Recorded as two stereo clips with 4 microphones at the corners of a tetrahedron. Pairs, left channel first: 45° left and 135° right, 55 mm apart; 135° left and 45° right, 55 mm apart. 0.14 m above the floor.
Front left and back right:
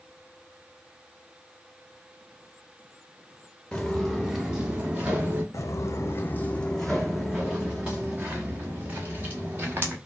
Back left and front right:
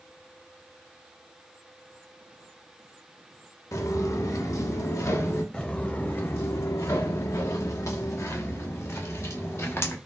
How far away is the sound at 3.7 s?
About 0.9 m.